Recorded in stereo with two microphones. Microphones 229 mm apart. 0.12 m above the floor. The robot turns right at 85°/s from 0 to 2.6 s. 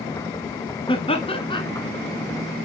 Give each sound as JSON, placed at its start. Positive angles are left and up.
{"t": 0.9, "sound": "laughter", "side_deg": 20, "distance_m": 1.1}